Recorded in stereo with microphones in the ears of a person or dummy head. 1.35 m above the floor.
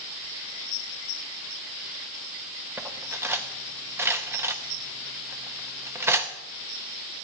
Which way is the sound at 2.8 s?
10° right (ahead or behind).